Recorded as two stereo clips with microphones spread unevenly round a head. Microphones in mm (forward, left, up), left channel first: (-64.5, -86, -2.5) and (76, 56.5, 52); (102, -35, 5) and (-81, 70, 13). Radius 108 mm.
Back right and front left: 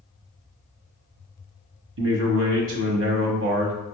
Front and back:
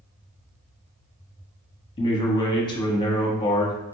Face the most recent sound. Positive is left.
turn(degrees=35)